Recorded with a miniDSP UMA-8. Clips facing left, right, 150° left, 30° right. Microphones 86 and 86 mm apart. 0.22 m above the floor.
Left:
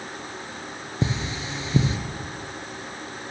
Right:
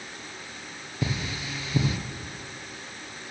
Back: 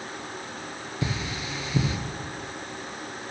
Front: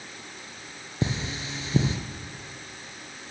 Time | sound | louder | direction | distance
1.0 | cutlery clinking | left 3 dB, front 2 dB | 30° left | 2.5 m